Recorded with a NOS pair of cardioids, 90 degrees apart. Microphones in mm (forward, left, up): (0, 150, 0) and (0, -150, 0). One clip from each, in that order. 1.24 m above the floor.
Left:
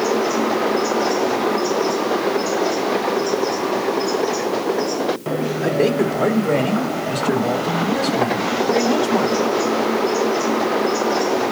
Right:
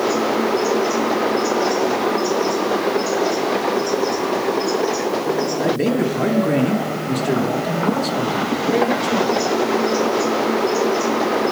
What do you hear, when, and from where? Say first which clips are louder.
5.6 s a man speaking: left 4 dB; straight ahead, 1.2 m; by 9.5 s 5° right, 3 m